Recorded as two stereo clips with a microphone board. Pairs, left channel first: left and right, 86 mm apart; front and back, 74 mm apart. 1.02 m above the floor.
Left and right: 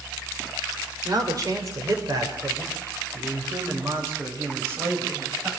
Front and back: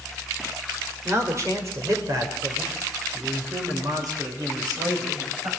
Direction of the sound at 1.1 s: 130° right.